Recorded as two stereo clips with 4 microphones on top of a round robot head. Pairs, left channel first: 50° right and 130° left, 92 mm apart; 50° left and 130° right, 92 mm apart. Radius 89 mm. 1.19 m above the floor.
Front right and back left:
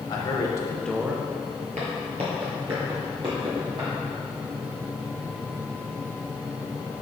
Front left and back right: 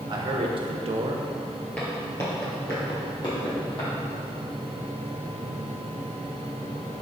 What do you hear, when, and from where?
0.1 s a man speaking: 90° right, 1.4 m; by 1.7 s 165° left, 1.1 m
1.8 s footsteps: 125° left, 1.6 m; by 3.9 s 90° left, 3.5 m